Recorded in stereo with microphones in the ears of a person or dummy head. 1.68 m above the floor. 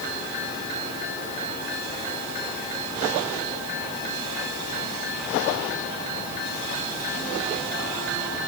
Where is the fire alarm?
I don't hear a fire alarm.